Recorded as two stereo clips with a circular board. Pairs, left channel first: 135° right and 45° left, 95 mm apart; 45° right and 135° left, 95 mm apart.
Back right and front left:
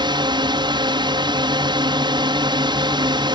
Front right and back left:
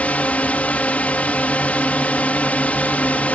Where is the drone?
30° left.